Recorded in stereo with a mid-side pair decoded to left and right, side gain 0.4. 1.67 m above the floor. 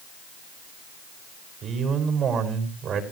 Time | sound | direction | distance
1.6 | a man speaking | 70° right | 5.5 m